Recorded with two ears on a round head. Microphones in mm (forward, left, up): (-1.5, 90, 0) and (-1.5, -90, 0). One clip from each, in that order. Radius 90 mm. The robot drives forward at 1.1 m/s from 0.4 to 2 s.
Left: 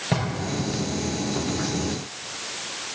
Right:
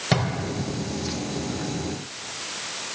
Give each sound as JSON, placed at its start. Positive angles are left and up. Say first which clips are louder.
{"t": 0.1, "sound": "a drawer", "louder": "right 3 dB", "side_deg": -35, "distance_m": 4.0}